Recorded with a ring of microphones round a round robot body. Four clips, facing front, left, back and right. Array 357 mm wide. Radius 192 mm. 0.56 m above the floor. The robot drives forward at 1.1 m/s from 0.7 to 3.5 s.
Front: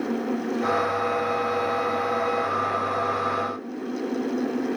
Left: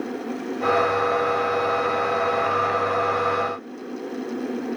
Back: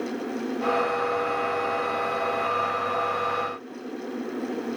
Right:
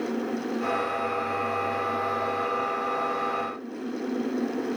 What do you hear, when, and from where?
Only background noise.